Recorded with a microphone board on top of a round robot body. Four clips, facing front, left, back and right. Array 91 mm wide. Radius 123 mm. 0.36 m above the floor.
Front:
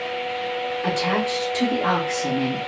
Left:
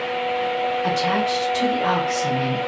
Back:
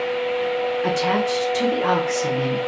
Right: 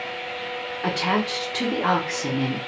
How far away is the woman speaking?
About 1.0 m.